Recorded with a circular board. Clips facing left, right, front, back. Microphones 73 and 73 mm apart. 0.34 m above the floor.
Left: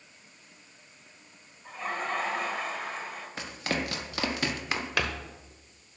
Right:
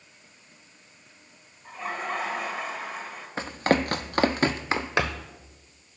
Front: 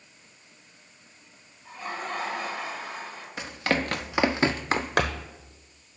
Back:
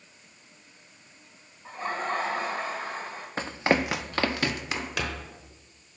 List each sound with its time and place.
1.6 s laughter: 175° right, 1.1 m
3.4 s running footsteps: 135° right, 0.7 m; by 5.3 s 20° right, 1.0 m